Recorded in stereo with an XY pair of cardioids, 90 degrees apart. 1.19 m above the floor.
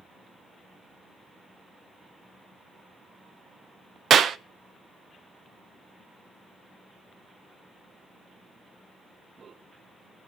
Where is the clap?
70° right, 0.7 m.